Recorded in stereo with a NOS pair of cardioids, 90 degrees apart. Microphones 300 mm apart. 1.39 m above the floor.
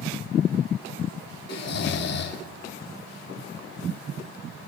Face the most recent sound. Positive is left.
turn(degrees=60)